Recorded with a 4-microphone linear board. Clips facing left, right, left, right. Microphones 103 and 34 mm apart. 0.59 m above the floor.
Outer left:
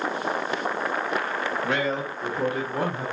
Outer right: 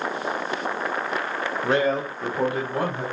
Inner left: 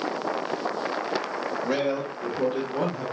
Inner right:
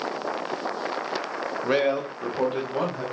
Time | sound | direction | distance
1.6 | a man speaking | 30° right (ahead or behind) | 0.8 m